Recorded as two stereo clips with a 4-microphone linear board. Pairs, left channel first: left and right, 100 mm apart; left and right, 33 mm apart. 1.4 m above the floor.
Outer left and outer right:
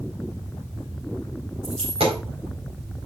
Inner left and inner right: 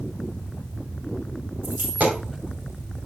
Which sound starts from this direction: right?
A dropped coin, at 1.6 s.